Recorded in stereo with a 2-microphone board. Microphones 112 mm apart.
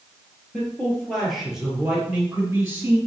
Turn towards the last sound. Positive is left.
turn(degrees=-20)  # may be behind; listen again after turning